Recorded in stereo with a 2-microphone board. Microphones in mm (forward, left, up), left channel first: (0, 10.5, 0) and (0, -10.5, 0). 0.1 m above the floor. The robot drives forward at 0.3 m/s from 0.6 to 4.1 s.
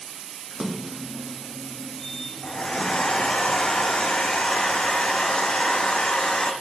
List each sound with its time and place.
0.5 s a splash: 35° right (ahead or behind), 1.2 m; by 3.2 s 20° right (ahead or behind), 1.9 m
2.4 s a hair dryer: 75° left (ahead or behind), 1.7 m; by 6.5 s 80° left, 1.6 m